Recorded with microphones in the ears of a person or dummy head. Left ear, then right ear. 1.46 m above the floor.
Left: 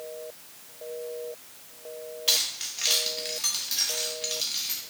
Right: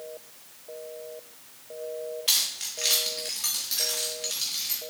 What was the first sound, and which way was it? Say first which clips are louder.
Keys jangling: left 1 dB; centre (ahead or behind).